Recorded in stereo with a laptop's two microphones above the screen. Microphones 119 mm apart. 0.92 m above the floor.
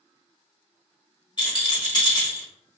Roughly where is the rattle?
Left.